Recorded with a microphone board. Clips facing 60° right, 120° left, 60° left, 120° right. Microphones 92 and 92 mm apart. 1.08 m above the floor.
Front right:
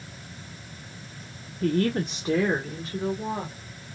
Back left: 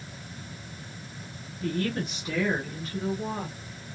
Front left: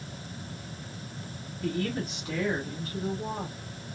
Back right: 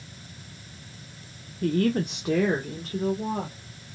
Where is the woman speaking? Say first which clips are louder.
Front right 5 dB, back right 7 dB; 85° right, 0.6 m; by 3.5 s 130° right, 1.6 m.